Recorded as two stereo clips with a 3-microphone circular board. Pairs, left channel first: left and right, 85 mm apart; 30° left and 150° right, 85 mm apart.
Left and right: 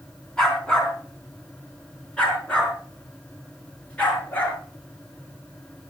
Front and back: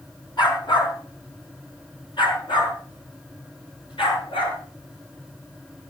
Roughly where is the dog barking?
Ahead.